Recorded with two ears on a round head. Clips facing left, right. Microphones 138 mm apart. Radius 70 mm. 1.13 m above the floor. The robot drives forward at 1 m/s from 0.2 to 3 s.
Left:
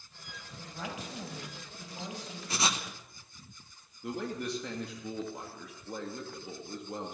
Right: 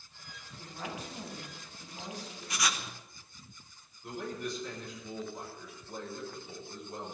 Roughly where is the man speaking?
Left.